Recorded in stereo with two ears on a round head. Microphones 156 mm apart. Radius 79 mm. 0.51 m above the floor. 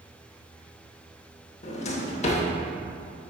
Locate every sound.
1.6 s a drawer: 40° left (ahead or behind), 0.8 m